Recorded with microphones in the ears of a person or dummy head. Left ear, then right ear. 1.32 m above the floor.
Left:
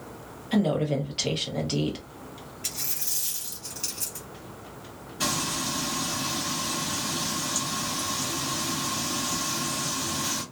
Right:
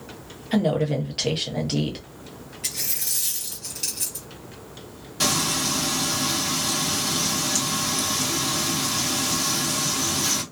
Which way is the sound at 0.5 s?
Centre (ahead or behind).